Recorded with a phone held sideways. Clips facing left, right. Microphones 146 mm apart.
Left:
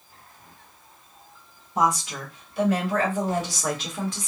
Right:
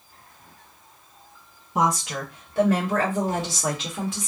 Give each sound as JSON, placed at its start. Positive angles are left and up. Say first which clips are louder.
{"t": 1.8, "sound": "a woman speaking", "louder": "even", "side_deg": -65, "distance_m": 1.3}